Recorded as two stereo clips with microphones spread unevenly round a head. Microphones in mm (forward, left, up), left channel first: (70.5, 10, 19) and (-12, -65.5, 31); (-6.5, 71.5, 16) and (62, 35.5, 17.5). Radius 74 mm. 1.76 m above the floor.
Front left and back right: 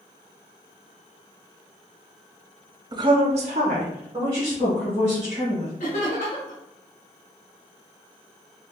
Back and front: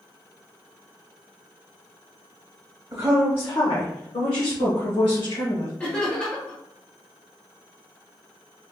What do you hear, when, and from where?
2.9 s a woman speaking: 90° right, 0.7 m; by 5.7 s 150° left, 2.5 m
5.8 s laughter: 85° left, 1.3 m